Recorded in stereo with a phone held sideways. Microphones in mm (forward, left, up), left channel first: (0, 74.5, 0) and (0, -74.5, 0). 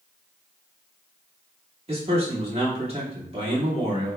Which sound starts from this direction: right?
A man speaking, at 1.9 s.